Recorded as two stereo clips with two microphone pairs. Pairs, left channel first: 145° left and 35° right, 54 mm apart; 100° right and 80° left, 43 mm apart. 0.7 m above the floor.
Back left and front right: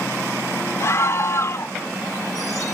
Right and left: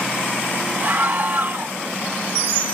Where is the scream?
120° left.